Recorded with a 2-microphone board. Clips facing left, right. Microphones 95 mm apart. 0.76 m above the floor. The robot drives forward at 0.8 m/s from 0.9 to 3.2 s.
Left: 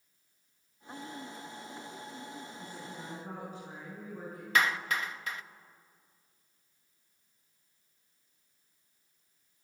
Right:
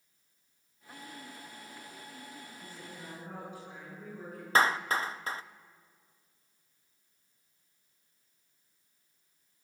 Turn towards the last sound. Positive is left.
turn(degrees=-35)  # may be behind; listen again after turning